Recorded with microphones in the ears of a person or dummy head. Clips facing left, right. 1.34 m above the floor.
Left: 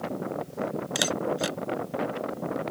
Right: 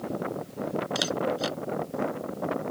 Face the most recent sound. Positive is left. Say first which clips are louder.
# left 2 dB
turn(degrees=25)  # may be behind; listen again after turning